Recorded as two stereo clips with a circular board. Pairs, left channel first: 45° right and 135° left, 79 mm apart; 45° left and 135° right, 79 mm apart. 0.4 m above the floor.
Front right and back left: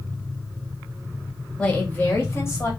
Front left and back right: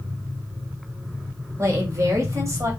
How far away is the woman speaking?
About 1.2 m.